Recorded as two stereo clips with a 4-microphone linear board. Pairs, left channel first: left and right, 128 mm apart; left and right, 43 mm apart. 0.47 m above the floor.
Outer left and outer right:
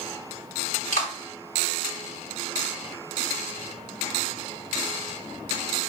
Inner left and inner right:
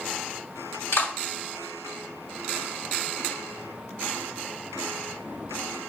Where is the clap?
75° left (ahead or behind), 4 m.